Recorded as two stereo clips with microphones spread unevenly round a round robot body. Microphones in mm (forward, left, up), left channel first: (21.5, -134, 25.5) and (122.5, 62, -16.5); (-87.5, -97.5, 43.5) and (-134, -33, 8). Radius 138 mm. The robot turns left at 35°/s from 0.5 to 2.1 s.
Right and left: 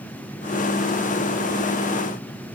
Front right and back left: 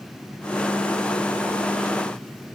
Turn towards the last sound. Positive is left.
No sound to turn to.